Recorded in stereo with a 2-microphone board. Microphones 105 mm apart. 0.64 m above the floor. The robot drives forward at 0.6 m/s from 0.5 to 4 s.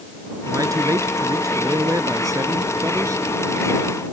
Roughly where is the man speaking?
Right.